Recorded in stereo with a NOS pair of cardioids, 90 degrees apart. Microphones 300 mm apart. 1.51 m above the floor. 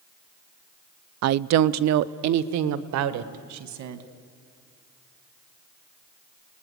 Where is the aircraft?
I don't hear an aircraft.